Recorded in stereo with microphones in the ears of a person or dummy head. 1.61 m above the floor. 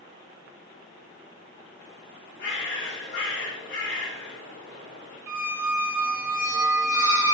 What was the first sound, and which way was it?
A bird, 65° left (ahead or behind).